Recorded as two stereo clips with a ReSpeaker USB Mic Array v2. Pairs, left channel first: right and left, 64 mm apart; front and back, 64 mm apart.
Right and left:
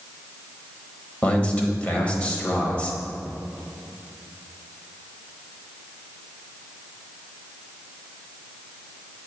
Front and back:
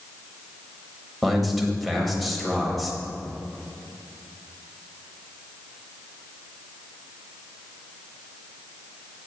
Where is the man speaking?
90° right, 0.9 m.